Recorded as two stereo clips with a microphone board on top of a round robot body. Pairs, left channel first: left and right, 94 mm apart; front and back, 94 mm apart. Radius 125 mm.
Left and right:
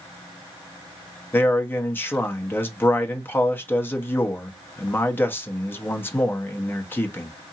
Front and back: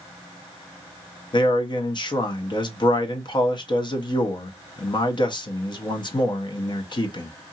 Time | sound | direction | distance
1.3 | a man speaking | 25° left | 0.9 m